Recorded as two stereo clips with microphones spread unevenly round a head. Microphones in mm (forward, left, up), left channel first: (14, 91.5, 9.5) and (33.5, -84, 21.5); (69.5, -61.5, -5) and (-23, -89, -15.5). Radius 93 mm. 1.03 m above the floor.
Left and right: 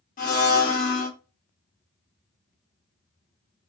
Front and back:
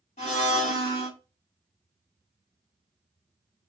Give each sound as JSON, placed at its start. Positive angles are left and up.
{"t": 0.2, "sound": "a blender", "azimuth_deg": 55, "distance_m": 1.4}